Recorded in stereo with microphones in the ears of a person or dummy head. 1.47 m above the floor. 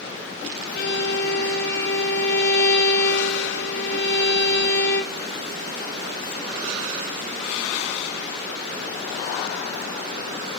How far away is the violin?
About 1.0 m.